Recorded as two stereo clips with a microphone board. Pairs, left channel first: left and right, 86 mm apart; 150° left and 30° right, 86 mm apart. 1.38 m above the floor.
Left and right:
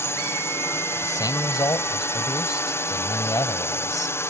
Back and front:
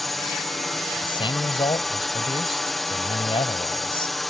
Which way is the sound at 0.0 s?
60° left.